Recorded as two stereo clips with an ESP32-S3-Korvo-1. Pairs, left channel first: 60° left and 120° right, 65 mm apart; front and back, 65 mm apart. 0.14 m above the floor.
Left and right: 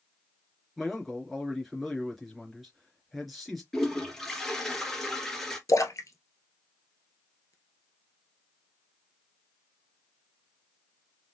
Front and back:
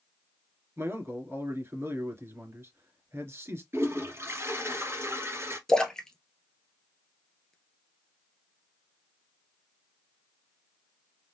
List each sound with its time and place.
0.8 s a man speaking: 150° left, 2.5 m
3.7 s a toilet flushing: 140° left, 2.5 m
5.7 s a splash: 80° left, 1.3 m